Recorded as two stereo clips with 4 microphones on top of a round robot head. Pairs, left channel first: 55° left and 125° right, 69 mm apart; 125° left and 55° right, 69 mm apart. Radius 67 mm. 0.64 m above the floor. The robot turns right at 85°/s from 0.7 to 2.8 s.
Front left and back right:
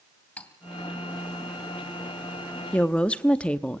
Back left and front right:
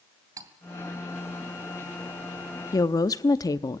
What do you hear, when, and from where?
0.4 s cutlery clinking: 15° right, 2.5 m
2.7 s a woman speaking: 120° left, 0.8 m; by 3.8 s 130° left, 0.8 m